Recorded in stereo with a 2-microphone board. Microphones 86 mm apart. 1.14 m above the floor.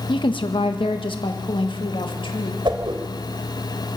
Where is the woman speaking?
65° left (ahead or behind), 1.4 m; by 2.5 s 70° left (ahead or behind), 2.5 m.